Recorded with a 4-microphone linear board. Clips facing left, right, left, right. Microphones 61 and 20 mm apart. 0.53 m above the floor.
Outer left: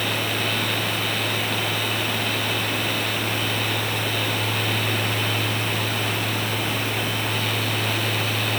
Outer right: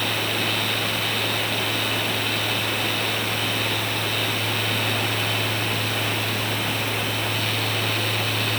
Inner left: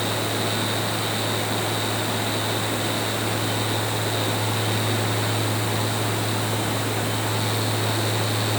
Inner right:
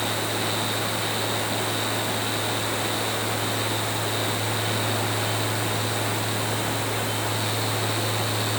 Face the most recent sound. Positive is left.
No sound to turn to.